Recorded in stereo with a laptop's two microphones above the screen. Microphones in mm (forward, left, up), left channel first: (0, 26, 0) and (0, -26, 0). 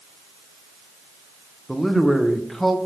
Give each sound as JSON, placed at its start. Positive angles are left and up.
{"t": 1.7, "sound": "a man speaking", "side_deg": 0, "distance_m": 0.6}